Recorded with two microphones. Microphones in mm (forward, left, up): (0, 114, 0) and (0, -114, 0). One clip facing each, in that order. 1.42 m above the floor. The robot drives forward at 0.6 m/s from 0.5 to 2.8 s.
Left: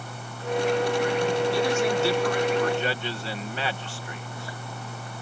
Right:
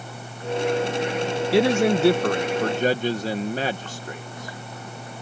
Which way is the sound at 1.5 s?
65° right (ahead or behind).